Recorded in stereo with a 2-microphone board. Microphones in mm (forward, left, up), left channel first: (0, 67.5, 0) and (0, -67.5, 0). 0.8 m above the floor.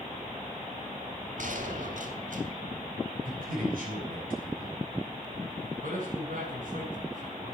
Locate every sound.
1.4 s a gunshot: 65° right (ahead or behind), 3 m
3.2 s a man speaking: 85° right, 8.5 m
5.8 s a man speaking: 75° right (ahead or behind), 8 m